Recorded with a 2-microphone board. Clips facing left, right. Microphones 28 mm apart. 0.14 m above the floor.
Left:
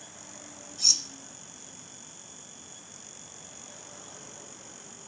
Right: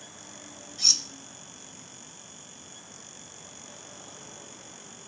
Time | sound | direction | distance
0.8 | cutlery clinking | 20° right (ahead or behind) | 0.7 m